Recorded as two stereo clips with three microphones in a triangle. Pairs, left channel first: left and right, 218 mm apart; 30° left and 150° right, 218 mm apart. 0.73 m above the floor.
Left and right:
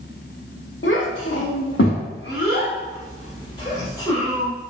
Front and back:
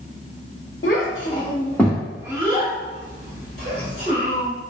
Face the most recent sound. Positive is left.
turn(degrees=165)